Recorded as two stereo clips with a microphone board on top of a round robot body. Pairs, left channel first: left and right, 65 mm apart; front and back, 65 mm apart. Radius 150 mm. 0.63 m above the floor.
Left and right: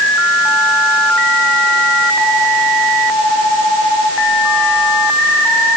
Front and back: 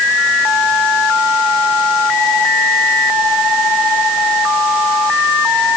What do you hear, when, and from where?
Only background noise.